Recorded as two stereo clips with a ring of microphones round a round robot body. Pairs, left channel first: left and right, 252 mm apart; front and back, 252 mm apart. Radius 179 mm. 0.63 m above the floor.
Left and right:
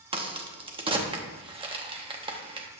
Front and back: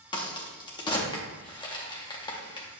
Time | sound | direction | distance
0.1 | a crack | 50° right | 0.8 m